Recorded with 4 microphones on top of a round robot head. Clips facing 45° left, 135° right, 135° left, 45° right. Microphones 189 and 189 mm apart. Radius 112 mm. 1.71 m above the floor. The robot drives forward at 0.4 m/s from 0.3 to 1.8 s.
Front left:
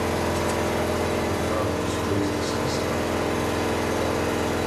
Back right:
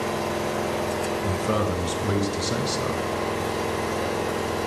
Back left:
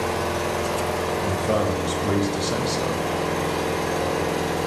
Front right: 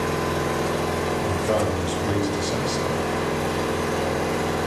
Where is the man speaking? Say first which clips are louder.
Even, back left 1 dB; 145° right, 0.7 m; by 3.0 s 150° right, 0.9 m.